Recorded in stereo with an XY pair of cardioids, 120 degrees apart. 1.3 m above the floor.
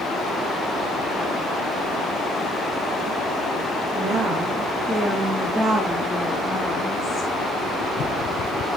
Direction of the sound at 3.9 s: 55° right.